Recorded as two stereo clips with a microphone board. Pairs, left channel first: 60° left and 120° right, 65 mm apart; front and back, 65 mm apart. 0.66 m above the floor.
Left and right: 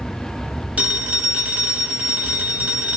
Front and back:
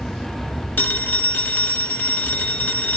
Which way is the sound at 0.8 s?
55° right.